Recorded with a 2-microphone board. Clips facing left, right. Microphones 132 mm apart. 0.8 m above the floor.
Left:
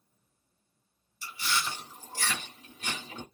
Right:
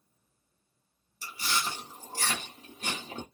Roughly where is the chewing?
Right.